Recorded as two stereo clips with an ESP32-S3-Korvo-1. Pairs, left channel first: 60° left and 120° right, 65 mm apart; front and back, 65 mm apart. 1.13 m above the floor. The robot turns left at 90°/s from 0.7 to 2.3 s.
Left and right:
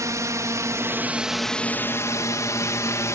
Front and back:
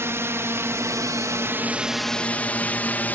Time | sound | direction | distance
0.0 | a drone | 140° right | ?